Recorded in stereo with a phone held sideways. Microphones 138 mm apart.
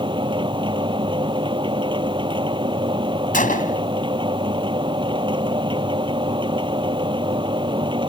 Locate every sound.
0.0 s a machine running: 35° right (ahead or behind)
3.3 s a gunshot: 80° left